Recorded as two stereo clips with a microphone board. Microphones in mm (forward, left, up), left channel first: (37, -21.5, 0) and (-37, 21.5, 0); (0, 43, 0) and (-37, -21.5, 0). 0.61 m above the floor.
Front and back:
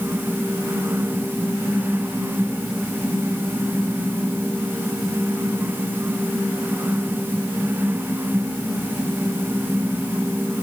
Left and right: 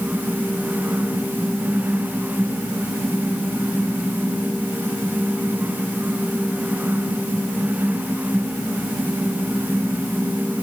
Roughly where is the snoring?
I don't hear snoring.